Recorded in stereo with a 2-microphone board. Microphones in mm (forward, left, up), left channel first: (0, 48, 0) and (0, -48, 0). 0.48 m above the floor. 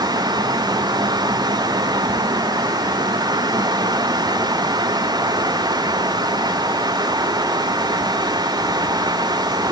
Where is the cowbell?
No cowbell in this recording.